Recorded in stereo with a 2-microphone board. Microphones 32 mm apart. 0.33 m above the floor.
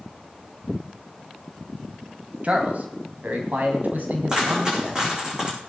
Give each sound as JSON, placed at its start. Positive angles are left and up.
{"t": 2.4, "sound": "a man speaking", "side_deg": -50, "distance_m": 2.5}
{"t": 4.3, "sound": "a dropped coin", "side_deg": -25, "distance_m": 8.0}